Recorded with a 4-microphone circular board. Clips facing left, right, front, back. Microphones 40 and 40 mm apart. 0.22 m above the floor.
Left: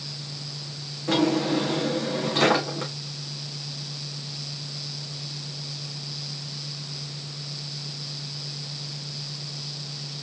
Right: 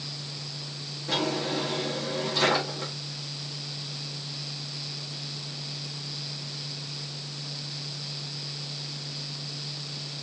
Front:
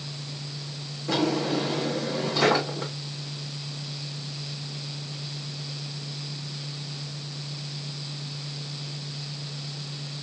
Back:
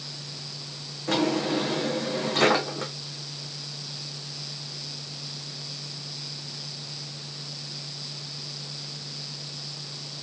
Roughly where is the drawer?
Behind left.